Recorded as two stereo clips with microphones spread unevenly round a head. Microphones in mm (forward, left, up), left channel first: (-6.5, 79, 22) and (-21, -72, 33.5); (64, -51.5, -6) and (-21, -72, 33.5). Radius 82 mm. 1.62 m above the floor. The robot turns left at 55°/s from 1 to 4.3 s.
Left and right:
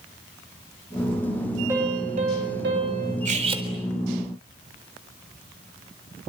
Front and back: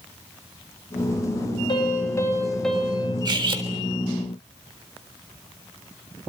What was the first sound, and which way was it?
A piano, 20° right.